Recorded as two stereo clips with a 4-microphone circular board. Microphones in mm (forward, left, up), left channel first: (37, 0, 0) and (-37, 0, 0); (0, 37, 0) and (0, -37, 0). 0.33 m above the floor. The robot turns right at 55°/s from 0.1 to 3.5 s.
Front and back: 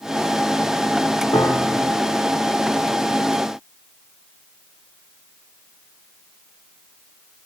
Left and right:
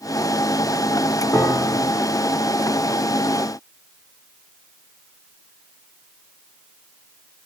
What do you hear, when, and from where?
1.3 s a piano: 15° left, 5 m; by 1.9 s 50° left, 5 m